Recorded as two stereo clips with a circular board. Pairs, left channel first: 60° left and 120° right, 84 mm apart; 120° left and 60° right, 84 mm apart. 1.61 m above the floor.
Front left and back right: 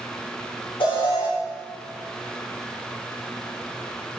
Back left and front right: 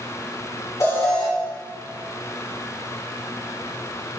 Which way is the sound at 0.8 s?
65° left.